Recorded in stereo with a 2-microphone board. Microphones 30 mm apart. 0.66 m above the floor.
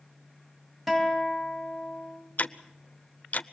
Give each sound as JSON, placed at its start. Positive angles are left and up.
{"t": 0.9, "sound": "a guitar", "side_deg": -5, "distance_m": 5.5}
{"t": 2.4, "sound": "ticking", "side_deg": 60, "distance_m": 0.7}